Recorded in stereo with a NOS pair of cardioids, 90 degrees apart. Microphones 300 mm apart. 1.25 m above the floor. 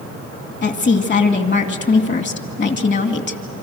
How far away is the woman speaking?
About 2.5 m.